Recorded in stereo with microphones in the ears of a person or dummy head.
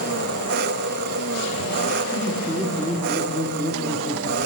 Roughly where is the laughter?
Centre.